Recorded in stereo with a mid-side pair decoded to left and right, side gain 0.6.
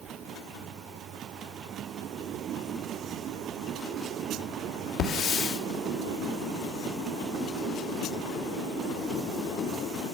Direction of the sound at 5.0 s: 65° left.